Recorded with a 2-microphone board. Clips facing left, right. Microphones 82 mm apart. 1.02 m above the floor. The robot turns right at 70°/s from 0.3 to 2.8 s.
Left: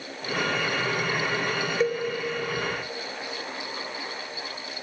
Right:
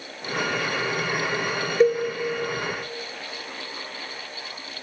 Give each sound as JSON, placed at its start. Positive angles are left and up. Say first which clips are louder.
{"t": 1.8, "sound": "a cowbell", "louder": "right 8 dB", "side_deg": -60, "distance_m": 3.0}